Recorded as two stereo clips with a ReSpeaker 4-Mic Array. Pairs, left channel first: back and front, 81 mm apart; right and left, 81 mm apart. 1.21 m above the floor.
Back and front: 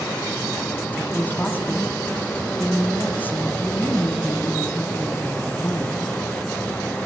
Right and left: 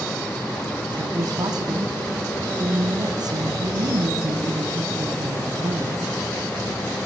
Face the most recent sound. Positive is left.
turn(degrees=115)